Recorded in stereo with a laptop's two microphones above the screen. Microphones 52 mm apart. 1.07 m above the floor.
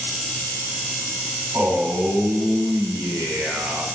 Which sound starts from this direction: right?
A man speaking, at 1.5 s.